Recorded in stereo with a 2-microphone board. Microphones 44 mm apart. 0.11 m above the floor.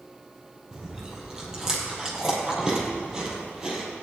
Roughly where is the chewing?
Centre.